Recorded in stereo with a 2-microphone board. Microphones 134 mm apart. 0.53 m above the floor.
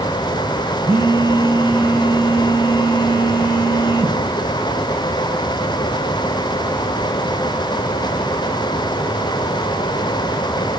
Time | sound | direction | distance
0.9 | a phone buzzing | 15° right (ahead or behind) | 3.5 m